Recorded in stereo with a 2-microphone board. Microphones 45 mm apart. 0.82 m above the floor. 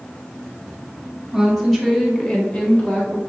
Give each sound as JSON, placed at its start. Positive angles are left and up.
{"t": 1.3, "sound": "a woman speaking", "side_deg": 0, "distance_m": 1.4}